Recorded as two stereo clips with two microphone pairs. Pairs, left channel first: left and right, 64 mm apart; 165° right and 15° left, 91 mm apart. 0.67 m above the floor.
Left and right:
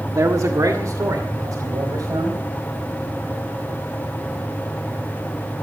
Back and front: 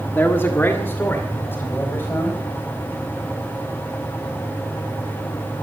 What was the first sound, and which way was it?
A man speaking, 105° right.